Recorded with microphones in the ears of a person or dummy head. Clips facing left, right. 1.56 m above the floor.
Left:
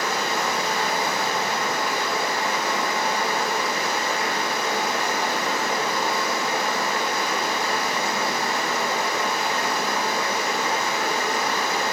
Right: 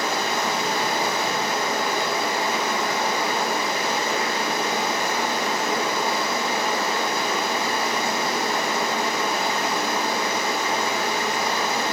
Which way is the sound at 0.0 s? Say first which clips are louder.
Right 1 dB; 25° right (ahead or behind).